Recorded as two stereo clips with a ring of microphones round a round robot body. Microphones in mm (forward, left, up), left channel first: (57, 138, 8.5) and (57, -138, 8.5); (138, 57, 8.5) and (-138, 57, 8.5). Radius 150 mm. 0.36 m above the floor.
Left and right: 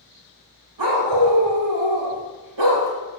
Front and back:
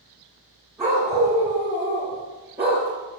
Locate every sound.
0.8 s a dog barking: 95° right, 5.5 m